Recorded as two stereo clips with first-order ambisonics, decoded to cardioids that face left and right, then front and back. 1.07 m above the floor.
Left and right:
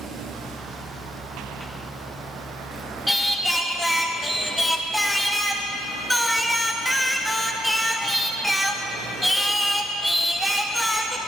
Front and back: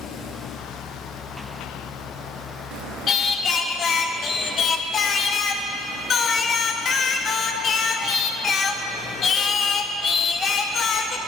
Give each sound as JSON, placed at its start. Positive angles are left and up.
{"t": 3.1, "sound": "singing", "azimuth_deg": 5, "distance_m": 0.6}